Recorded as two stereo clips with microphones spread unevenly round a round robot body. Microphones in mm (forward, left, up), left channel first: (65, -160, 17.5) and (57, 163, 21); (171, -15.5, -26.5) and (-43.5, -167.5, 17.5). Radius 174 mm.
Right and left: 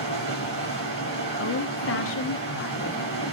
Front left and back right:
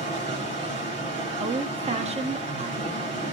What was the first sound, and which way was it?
Running water, 135° left.